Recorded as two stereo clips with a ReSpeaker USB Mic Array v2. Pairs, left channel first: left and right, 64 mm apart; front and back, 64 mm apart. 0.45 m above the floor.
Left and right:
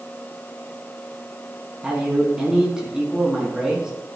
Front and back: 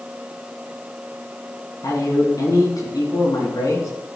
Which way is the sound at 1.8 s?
15° right.